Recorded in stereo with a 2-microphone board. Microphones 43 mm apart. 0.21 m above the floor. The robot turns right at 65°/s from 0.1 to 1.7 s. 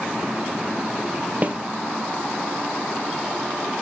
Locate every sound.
1.4 s a snare drum: 40° right (ahead or behind), 1.2 m; by 1.6 s 30° right (ahead or behind), 1.2 m